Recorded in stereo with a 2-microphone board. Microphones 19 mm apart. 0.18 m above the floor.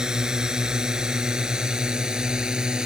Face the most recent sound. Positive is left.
turn(degrees=-40)  # may be behind; listen again after turning